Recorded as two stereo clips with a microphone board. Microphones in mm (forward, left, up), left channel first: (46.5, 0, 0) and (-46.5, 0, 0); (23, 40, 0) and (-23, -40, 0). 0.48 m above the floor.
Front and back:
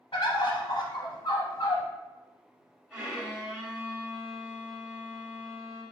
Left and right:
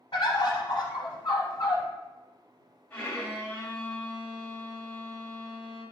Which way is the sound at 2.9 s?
115° left.